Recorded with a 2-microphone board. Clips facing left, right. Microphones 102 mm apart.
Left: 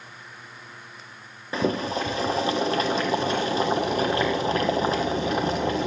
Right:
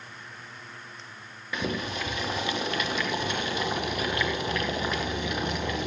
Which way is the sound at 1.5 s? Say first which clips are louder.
Left 6 dB; 35° left (ahead or behind).